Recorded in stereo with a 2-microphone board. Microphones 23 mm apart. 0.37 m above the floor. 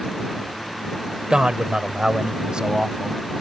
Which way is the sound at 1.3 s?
45° right (ahead or behind).